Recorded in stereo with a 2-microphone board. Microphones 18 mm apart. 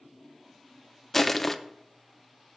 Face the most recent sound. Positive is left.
turn(degrees=15)  # may be behind; listen again after turning